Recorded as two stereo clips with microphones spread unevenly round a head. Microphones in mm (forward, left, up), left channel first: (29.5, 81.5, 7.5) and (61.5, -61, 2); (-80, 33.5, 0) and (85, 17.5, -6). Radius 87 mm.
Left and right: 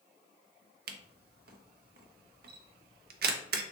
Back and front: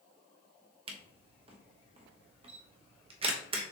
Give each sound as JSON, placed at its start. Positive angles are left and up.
{"t": 0.9, "sound": "a camera shutter", "azimuth_deg": -65, "distance_m": 0.7}